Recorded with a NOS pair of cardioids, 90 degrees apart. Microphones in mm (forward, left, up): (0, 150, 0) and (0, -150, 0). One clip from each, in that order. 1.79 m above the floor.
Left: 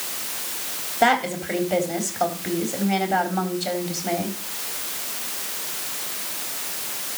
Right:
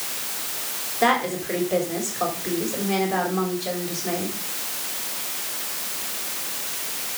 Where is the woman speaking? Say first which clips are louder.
Left 1 dB; 30° left, 4.5 m.